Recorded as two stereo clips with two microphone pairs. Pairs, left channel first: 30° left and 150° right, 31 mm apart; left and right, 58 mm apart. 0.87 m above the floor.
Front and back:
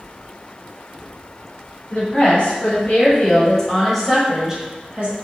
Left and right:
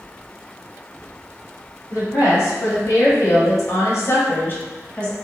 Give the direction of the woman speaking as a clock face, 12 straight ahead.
10 o'clock.